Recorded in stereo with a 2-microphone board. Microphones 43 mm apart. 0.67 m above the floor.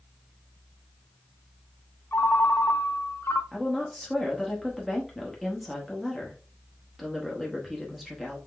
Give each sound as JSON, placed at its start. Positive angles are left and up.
{"t": 2.1, "sound": "a ringtone", "side_deg": 70, "distance_m": 0.6}
{"t": 3.5, "sound": "a woman speaking", "side_deg": 0, "distance_m": 1.0}